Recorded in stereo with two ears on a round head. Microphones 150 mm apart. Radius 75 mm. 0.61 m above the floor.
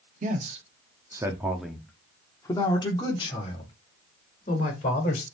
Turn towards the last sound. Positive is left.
turn(degrees=45)  # may be behind; listen again after turning